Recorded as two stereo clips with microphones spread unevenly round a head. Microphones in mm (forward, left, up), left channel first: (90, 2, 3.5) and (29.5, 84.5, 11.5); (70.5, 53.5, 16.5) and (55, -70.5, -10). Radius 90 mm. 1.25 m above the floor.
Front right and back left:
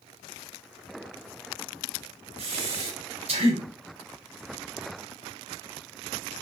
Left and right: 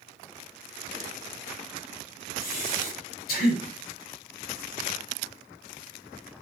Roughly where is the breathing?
Behind left.